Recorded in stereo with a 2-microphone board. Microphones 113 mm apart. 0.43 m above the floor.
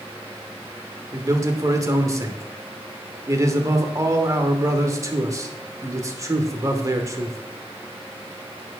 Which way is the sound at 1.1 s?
30° right (ahead or behind).